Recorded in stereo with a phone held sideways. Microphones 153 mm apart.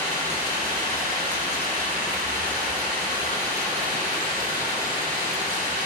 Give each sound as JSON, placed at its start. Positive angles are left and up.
{"t": 0.0, "sound": "running water", "side_deg": -80, "distance_m": 3.0}